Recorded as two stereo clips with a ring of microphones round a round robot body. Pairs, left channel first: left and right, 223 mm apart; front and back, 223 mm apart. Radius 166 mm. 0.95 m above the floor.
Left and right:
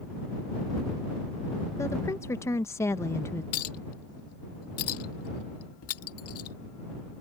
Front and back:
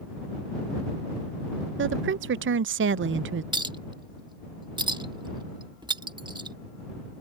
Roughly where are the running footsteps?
I don't hear running footsteps.